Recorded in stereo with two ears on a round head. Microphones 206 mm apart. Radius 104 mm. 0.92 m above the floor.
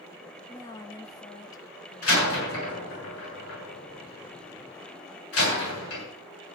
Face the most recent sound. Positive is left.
turn(degrees=60)  # may be behind; listen again after turning